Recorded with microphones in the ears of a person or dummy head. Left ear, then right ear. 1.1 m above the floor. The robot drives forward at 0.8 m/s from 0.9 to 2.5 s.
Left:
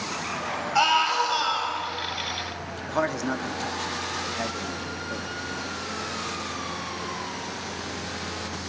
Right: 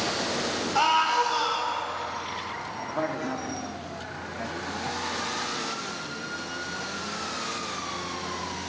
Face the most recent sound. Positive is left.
turn(degrees=80)